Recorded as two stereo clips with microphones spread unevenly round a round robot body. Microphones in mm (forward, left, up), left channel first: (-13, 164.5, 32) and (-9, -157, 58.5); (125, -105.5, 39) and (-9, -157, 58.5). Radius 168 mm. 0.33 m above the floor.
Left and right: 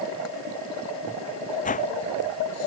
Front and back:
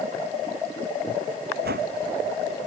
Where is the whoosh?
160° left.